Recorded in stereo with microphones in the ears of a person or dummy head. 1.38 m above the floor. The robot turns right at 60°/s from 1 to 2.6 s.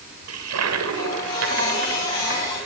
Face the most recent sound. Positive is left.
turn(degrees=-5)